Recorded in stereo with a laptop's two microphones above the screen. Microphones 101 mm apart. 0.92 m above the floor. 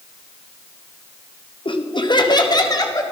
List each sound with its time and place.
1.6 s laughter: 55° left (ahead or behind), 1.0 m; by 3.0 s 35° left (ahead or behind), 1.5 m